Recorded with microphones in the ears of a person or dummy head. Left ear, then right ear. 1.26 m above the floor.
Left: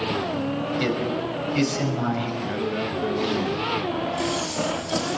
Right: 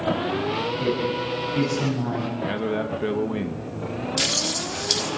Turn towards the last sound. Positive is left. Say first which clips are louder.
# right 2 dB
turn(degrees=-85)